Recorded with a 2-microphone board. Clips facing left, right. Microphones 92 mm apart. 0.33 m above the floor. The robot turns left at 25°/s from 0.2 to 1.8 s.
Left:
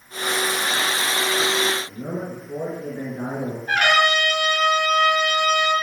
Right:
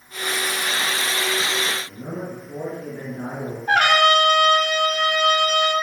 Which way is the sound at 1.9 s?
25° left (ahead or behind).